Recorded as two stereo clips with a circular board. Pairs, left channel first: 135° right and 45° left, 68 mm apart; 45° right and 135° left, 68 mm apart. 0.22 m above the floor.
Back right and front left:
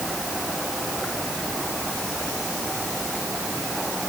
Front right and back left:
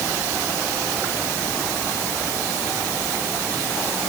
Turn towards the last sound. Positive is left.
No sound to turn to.